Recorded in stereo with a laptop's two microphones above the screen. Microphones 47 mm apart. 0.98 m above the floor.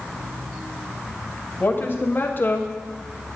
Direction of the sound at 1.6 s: 50° left (ahead or behind).